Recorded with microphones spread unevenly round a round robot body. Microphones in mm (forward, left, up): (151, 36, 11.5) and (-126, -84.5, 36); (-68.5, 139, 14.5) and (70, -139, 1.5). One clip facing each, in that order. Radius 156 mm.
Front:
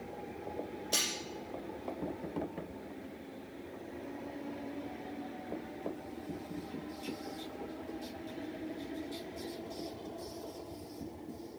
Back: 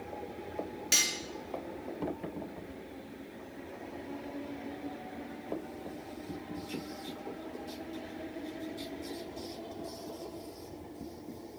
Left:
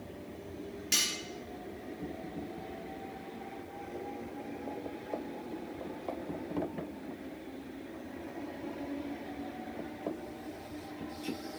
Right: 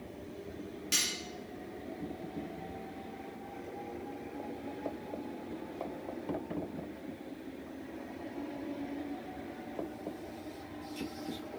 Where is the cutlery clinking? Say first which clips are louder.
Even, even; 160° right, 4 m.